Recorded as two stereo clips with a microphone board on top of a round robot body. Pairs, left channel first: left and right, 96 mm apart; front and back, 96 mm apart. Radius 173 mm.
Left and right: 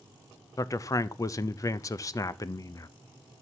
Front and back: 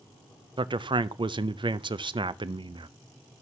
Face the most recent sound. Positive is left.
turn(degrees=145)